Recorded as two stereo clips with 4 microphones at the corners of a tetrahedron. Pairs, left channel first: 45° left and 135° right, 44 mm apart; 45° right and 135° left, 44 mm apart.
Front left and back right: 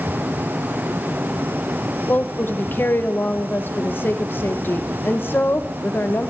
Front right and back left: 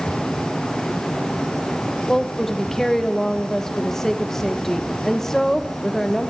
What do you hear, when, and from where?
2.1 s a woman speaking: 35° left, 1.0 m